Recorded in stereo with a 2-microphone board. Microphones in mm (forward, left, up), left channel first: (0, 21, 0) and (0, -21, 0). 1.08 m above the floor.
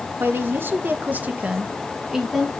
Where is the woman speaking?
60° right (ahead or behind), 1.4 m; by 2.5 s 5° right (ahead or behind), 1.7 m.